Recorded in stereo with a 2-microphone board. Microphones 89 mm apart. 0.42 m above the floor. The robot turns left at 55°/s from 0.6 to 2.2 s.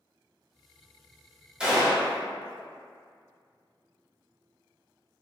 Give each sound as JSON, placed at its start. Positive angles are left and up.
{"t": 1.6, "sound": "a gunshot", "side_deg": -10, "distance_m": 1.1}